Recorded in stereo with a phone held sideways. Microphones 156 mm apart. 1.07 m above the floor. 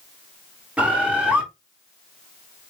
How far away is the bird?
About 0.7 m.